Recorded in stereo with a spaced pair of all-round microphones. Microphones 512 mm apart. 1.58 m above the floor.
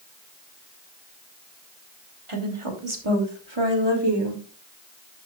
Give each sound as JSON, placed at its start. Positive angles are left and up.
{"t": 2.3, "sound": "a woman speaking", "side_deg": -80, "distance_m": 3.0}